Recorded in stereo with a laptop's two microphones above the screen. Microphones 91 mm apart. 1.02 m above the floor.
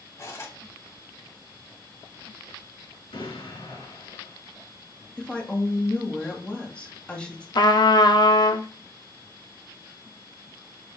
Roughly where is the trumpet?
Left.